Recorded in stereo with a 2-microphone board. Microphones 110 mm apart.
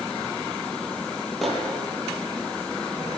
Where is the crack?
No crack in this recording.